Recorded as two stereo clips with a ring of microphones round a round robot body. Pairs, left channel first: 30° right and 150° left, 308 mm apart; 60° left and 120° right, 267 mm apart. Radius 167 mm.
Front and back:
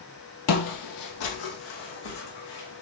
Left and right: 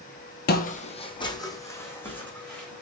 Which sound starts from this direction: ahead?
Footsteps, at 0.5 s.